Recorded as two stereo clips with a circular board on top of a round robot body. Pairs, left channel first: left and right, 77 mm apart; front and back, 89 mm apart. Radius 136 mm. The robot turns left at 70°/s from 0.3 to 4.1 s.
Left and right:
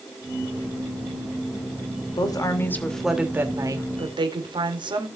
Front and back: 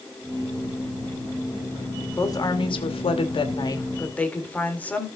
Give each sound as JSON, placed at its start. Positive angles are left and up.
{"t": 2.2, "sound": "a woman speaking", "azimuth_deg": 65, "distance_m": 3.0}